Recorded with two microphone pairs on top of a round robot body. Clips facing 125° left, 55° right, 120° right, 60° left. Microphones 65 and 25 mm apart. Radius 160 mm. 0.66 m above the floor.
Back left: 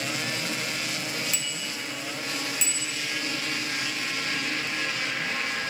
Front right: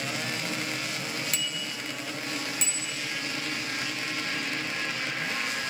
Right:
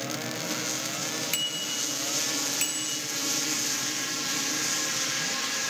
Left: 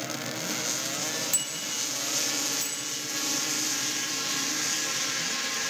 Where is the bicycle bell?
70° right, 2.5 m; by 3.0 s 95° right, 3.5 m.